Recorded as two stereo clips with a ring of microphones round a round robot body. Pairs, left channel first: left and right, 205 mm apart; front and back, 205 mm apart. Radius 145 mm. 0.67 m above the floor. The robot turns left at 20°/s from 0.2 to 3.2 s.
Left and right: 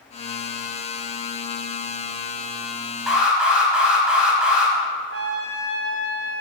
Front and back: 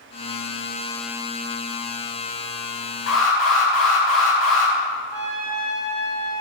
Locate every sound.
3.1 s an alarm: straight ahead, 4.5 m; by 4.7 s 5° right, 4.5 m
5.1 s a trumpet: 80° right, 2.5 m